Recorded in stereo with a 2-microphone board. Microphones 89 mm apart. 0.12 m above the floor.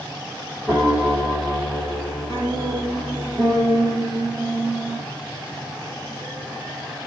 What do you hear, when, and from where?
0.7 s a piano: 5° left (ahead or behind), 5 m